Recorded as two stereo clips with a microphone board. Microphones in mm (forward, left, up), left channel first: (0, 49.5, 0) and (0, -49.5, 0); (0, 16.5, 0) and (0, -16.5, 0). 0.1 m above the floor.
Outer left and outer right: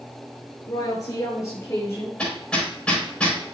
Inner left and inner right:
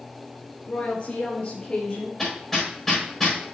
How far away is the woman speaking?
About 1.9 m.